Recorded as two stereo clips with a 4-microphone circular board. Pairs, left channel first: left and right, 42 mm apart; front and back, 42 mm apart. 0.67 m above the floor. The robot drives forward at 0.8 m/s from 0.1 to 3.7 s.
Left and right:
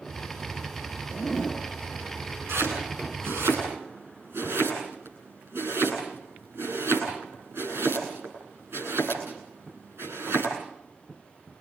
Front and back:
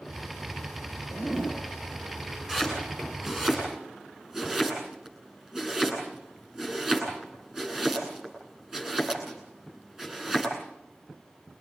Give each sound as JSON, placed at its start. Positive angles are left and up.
{"t": 1.1, "sound": "a zipper", "azimuth_deg": -175, "distance_m": 5.5}
{"t": 2.5, "sound": "chopping", "azimuth_deg": -105, "distance_m": 9.0}